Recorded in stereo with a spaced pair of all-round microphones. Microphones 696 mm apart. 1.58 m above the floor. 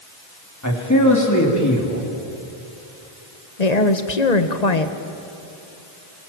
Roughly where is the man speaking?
Left.